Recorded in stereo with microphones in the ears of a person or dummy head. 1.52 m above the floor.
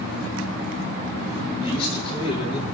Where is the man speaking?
30° left (ahead or behind), 9.5 m.